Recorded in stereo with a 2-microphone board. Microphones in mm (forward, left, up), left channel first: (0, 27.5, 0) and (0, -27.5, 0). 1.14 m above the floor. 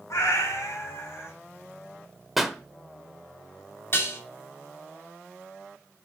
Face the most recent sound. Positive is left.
turn(degrees=45)  # may be behind; listen again after turning